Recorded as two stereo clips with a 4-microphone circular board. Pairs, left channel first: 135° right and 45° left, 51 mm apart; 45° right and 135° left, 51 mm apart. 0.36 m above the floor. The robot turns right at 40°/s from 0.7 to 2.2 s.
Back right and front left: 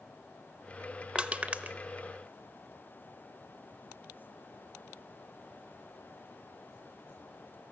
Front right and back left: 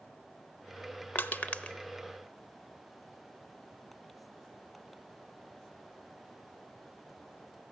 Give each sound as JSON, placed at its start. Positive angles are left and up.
{"t": 1.1, "sound": "crushing", "azimuth_deg": -15, "distance_m": 0.5}